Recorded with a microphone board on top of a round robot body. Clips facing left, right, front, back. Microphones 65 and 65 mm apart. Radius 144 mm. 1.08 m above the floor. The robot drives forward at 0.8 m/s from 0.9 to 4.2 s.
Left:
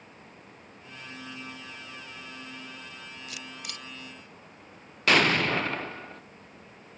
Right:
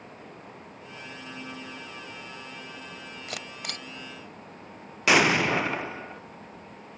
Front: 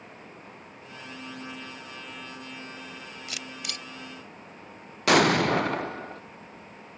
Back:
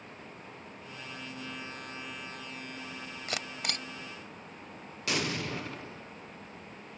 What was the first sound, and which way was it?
A camera shutter, 130° right.